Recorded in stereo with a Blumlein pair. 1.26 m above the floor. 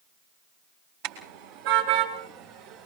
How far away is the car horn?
About 4.5 m.